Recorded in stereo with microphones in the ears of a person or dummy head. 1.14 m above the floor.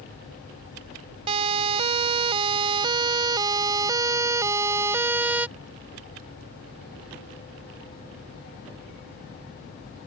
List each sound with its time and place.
1.3 s a siren: 30° right (ahead or behind); by 5.5 s 10° right (ahead or behind)